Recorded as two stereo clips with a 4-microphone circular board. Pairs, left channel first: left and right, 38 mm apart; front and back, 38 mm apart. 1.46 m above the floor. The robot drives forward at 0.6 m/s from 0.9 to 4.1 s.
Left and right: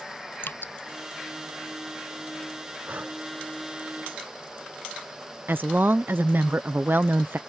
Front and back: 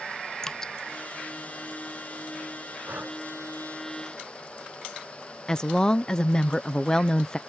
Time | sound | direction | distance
0.4 | dripping | 75° left | ?
2.9 | breathing | 135° right | ?
5.5 | a woman speaking | 70° right | ?